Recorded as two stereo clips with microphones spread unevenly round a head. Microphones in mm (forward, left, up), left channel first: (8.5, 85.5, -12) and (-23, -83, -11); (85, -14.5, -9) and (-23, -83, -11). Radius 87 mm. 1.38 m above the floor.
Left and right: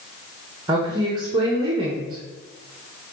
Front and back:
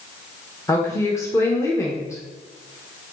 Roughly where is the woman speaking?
Ahead right.